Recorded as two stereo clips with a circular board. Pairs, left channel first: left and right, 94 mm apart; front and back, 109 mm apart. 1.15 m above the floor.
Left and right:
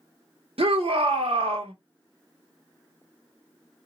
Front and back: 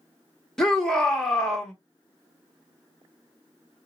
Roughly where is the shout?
Right.